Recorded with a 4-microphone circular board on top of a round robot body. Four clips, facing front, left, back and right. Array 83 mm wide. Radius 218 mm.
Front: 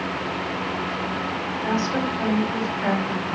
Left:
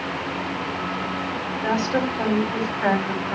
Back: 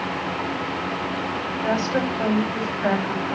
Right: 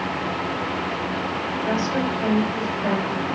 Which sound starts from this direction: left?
A woman speaking, at 1.6 s.